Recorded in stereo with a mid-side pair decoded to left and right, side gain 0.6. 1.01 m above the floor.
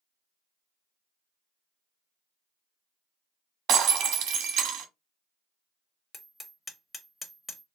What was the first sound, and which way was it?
Breaking glass, 55° right.